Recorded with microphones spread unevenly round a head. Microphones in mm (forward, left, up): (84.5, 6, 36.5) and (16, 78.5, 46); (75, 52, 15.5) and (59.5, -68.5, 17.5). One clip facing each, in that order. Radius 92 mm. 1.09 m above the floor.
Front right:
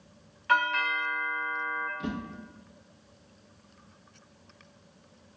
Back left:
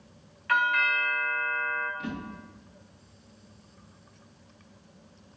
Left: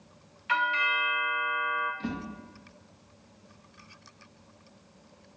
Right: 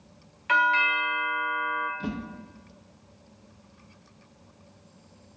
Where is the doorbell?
95° right, 0.6 m.